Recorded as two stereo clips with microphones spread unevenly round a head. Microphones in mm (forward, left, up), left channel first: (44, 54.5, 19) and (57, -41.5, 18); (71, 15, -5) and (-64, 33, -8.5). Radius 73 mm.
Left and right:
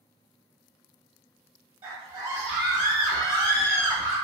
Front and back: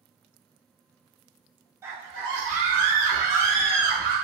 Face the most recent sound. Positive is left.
turn(degrees=140)